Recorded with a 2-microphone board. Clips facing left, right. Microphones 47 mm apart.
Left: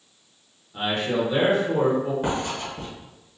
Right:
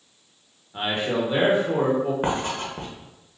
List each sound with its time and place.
0.7 s a man speaking: 25° right (ahead or behind), 0.9 m
2.2 s writing: 45° right (ahead or behind), 0.7 m